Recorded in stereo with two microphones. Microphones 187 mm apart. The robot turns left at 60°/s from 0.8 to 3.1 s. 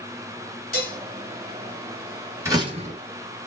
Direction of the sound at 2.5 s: 15° right.